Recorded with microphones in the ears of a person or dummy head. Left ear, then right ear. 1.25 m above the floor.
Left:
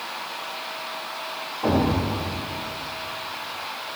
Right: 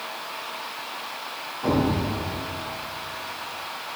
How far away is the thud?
About 2 m.